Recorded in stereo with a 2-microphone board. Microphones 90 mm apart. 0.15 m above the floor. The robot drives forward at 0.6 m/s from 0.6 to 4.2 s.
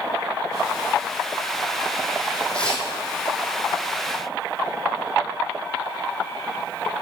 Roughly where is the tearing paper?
Centre.